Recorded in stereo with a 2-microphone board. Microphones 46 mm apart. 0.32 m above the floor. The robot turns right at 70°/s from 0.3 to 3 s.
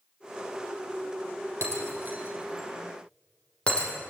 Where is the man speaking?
I don't hear a man speaking.